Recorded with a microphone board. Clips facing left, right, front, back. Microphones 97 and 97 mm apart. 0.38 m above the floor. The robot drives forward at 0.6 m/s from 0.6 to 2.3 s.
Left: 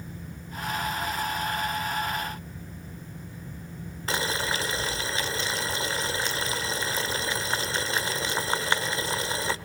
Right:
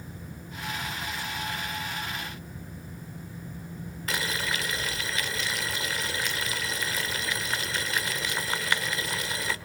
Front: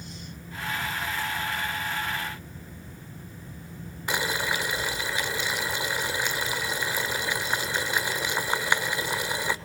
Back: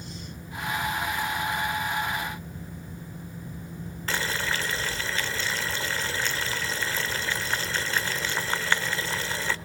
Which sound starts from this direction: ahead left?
Boiling, at 4.1 s.